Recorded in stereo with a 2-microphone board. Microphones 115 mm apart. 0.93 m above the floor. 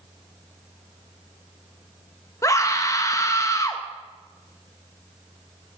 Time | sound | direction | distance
2.4 | a scream | 25° left (ahead or behind) | 1.1 m